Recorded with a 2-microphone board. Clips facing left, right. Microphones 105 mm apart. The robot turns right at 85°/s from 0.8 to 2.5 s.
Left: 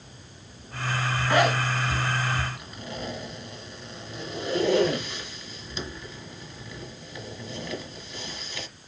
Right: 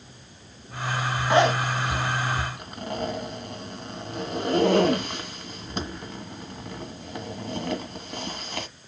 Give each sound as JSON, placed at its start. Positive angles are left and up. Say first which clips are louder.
{"t": 1.3, "sound": "a zipper", "louder": "right 3 dB", "side_deg": -20, "distance_m": 1.5}